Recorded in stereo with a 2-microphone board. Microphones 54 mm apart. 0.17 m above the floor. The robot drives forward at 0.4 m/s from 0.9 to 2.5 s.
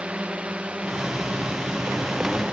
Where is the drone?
20° right (ahead or behind).